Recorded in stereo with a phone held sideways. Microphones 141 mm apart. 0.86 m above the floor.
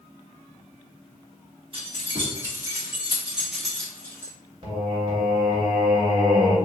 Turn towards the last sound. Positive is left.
turn(degrees=-35)  # may be behind; listen again after turning